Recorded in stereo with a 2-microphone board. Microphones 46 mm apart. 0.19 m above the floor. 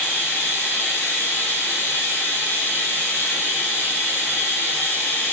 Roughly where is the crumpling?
No crumpling in this recording.